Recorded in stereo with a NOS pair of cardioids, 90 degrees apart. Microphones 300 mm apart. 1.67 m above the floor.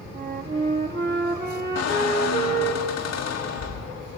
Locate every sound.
0.1 s a flute: 30° right, 2.5 m
1.8 s a squeak: 65° left, 1.8 m